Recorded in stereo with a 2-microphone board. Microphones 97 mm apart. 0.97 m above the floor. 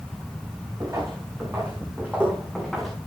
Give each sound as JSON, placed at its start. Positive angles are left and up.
{"t": 0.8, "sound": "footsteps", "side_deg": -35, "distance_m": 4.5}